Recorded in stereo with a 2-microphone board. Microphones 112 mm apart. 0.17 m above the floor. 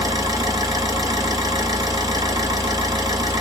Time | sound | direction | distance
0.0 | an engine running | 35° right (ahead or behind) | 1.0 m